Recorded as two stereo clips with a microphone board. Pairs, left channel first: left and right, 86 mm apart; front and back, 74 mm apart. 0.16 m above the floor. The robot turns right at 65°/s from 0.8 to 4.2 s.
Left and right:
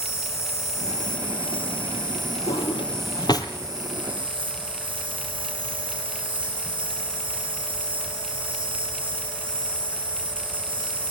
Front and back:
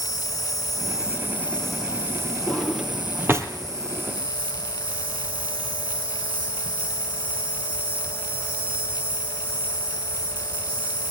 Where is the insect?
35° left, 5.5 m; by 11.1 s 105° right, 5.5 m.